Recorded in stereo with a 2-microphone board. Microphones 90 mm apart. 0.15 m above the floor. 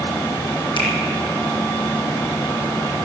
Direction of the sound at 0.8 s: 60° left (ahead or behind).